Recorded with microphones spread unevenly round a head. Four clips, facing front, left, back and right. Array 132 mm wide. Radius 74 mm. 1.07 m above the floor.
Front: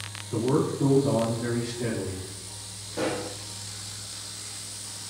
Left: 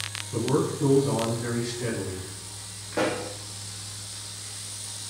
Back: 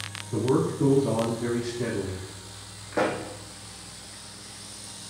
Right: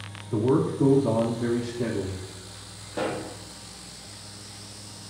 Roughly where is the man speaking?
Right.